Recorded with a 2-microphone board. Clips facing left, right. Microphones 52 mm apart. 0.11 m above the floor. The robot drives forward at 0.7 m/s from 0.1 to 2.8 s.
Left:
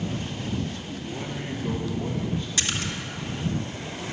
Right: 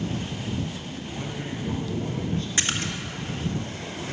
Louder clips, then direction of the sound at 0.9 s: Left 1 dB; 20° left (ahead or behind).